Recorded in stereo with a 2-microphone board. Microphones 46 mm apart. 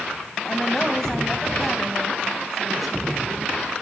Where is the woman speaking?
15° left (ahead or behind), 2.5 m; by 3.8 s 5° right (ahead or behind), 4 m.